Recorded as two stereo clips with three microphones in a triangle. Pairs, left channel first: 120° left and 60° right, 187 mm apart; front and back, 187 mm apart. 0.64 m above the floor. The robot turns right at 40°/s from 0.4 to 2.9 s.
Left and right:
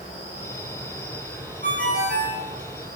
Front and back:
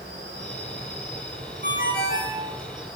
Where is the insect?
170° left, 3.5 m; by 3.0 s 90° right, 3.5 m.